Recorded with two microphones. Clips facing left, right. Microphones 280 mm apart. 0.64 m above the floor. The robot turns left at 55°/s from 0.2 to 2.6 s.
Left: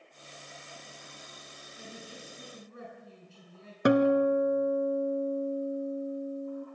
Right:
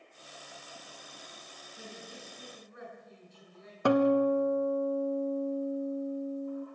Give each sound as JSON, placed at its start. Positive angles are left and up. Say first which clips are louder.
{"t": 1.8, "sound": "a man speaking", "louder": "left 1 dB", "azimuth_deg": -170, "distance_m": 7.0}
{"t": 3.9, "sound": "a guitar", "louder": "left 1 dB", "side_deg": 20, "distance_m": 1.3}